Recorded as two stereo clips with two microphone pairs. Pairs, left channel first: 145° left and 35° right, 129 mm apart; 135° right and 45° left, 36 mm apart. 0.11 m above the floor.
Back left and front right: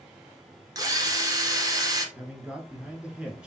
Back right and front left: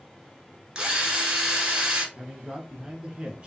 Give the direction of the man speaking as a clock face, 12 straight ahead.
11 o'clock.